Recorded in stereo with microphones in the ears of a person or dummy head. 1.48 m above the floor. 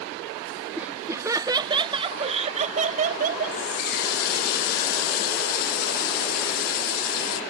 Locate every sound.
0.8 s laughter: 10° right (ahead or behind); by 3.6 s 45° right (ahead or behind)
3.5 s a running tap: 50° left (ahead or behind)